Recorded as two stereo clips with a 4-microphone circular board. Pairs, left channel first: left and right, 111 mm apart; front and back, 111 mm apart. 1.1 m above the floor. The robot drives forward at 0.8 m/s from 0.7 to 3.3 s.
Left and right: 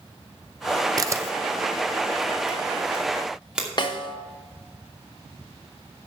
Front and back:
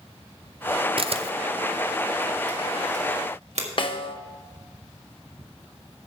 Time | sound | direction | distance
1.0 | a camera shutter | 145° right | 0.6 m
3.8 | a snare drum | 40° left | 1.0 m